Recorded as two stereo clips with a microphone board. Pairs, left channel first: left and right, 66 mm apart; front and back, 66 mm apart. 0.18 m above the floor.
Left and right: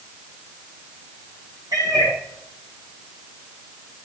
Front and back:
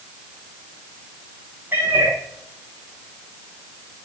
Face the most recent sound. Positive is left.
turn(degrees=-115)